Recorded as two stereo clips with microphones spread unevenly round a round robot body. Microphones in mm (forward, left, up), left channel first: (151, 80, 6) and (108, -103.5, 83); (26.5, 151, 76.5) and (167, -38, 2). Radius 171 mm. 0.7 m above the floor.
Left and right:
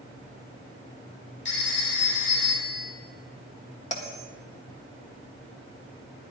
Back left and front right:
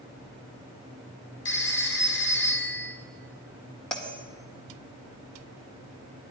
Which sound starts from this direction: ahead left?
A bell, at 3.9 s.